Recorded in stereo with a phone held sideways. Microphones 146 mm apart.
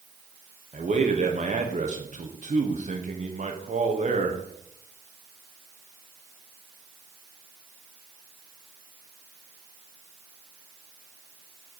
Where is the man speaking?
55° right (ahead or behind), 1.1 m.